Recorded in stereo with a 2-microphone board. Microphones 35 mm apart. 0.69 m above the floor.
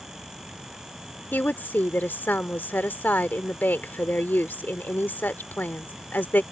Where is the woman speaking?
70° left (ahead or behind).